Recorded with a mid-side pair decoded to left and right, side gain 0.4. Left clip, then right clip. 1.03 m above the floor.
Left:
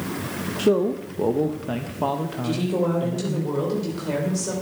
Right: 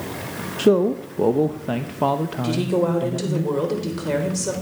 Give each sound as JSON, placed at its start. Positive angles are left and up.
{"t": 0.6, "sound": "a man speaking", "azimuth_deg": -30, "distance_m": 0.7}
{"t": 2.4, "sound": "a woman speaking", "azimuth_deg": -40, "distance_m": 3.5}